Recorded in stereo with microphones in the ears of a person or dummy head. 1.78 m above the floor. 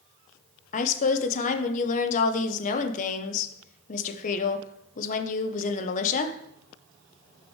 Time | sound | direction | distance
0.7 | a woman speaking | 45° left (ahead or behind) | 0.9 m